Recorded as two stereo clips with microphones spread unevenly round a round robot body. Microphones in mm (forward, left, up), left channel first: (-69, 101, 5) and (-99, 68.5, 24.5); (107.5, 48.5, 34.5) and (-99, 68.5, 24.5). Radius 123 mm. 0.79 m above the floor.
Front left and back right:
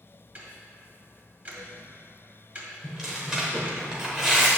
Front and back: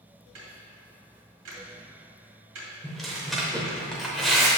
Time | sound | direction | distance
0.3 | ticking | 175° left | 1.9 m
2.8 | tearing paper | 90° right | 0.5 m